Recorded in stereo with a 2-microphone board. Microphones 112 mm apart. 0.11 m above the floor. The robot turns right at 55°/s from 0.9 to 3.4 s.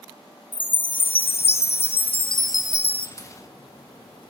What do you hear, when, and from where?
0.5 s a chime: 50° left, 1.2 m; by 3.1 s 170° left, 1.2 m
3.2 s a crack: 30° left (ahead or behind), 5.5 m; by 4.3 s 40° left (ahead or behind), 5.5 m